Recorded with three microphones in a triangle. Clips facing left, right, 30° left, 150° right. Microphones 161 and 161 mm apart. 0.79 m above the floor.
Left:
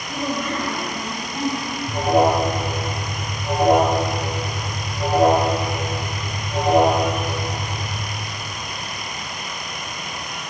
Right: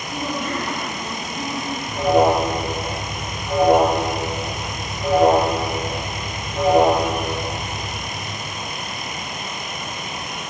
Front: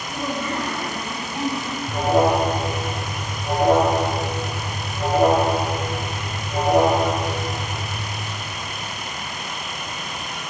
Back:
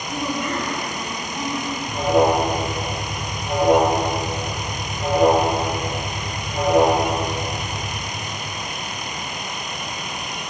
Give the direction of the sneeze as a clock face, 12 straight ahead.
No sneeze in this recording.